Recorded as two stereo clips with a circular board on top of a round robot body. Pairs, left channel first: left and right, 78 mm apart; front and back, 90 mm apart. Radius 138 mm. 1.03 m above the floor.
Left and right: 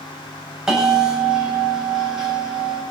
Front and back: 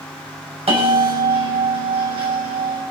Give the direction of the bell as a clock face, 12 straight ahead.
6 o'clock.